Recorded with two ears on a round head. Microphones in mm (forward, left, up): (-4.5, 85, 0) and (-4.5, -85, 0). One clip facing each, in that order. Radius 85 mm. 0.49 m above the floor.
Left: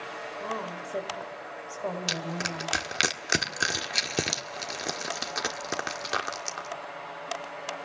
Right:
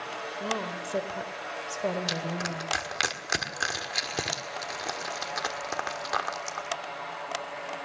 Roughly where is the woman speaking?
Right.